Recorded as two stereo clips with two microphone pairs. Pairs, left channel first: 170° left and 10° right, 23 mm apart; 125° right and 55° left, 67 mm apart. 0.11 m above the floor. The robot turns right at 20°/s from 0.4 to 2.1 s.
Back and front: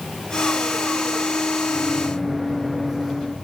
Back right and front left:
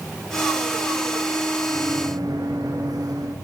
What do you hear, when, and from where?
1.7 s a microwave: 70° left, 9 m; by 3.3 s 80° left, 9 m